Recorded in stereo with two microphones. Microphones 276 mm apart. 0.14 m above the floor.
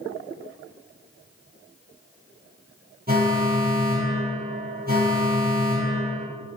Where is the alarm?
35° right (ahead or behind), 3 m.